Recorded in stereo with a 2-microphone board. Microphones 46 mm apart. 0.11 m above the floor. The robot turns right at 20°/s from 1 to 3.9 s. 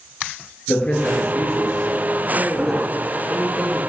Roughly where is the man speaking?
Behind left.